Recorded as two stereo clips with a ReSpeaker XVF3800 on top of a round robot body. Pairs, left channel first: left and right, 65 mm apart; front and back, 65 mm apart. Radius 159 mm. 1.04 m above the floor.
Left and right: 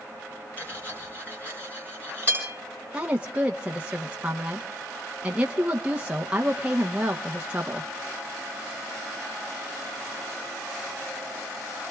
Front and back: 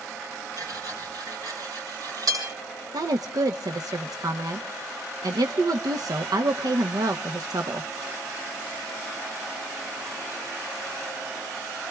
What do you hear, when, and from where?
0.6 s cutlery clinking: 155° left, 6.5 m
2.9 s a woman speaking: 165° right, 0.9 m